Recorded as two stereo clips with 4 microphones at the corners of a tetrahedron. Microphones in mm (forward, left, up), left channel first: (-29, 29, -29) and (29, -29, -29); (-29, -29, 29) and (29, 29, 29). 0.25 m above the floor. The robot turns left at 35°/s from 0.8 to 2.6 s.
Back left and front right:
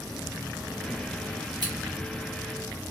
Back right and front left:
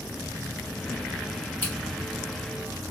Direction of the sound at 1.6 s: 70° right.